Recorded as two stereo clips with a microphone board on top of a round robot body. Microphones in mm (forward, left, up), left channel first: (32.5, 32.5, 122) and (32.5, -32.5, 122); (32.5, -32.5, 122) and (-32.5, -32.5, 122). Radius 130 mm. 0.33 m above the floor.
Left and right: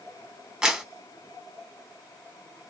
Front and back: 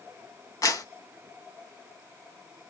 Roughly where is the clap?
Ahead.